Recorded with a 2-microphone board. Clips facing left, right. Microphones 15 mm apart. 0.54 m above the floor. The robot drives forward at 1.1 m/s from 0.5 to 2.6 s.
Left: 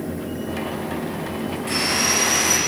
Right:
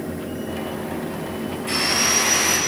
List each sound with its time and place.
1.7 s sawing: 5° left (ahead or behind), 7 m